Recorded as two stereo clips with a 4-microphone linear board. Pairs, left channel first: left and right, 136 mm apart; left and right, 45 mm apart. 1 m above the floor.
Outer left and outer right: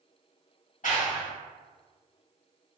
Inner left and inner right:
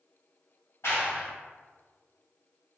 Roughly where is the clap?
Left.